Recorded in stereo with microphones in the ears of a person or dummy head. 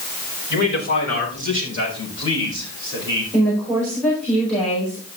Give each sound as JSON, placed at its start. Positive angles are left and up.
{"t": 0.5, "sound": "a man speaking", "side_deg": 55, "distance_m": 5.0}
{"t": 3.3, "sound": "a woman speaking", "side_deg": 5, "distance_m": 4.5}